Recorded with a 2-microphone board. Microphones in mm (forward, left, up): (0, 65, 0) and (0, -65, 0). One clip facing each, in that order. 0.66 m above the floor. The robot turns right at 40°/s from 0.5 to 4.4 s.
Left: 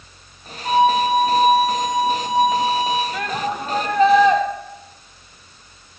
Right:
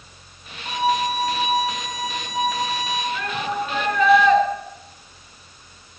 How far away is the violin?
About 9.5 m.